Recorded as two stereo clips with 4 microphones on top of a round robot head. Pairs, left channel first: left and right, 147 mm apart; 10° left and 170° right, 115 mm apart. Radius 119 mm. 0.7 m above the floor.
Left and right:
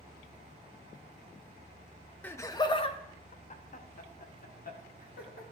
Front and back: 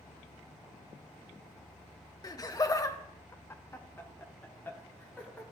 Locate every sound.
2.2 s laughter: 20° left, 0.8 m; by 5.4 s 85° left, 2.5 m